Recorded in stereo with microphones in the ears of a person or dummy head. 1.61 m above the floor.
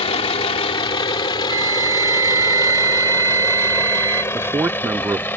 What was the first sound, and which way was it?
A vehicle, 35° left (ahead or behind).